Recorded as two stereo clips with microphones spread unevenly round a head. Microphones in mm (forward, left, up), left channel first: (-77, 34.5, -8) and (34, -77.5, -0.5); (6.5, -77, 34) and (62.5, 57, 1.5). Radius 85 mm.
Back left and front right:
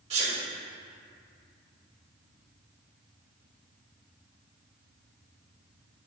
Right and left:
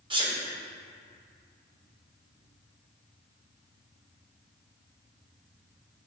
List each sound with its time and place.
0.1 s a sneeze: 10° left, 1.8 m